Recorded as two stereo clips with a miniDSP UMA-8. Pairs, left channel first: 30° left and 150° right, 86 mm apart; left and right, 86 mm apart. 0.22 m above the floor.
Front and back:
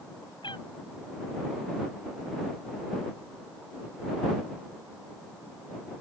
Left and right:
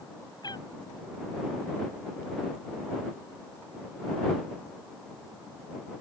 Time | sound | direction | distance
0.4 | a cat meowing | 55° left | ?